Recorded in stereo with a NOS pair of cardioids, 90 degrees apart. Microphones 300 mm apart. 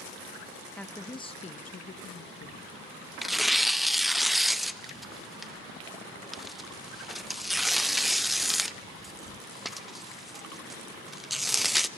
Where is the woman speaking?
5° left, 1.8 m; by 2.8 s 55° left, 2 m.